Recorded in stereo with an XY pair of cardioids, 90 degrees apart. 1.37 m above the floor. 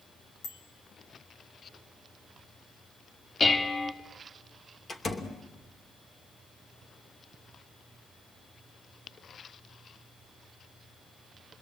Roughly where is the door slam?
Ahead left.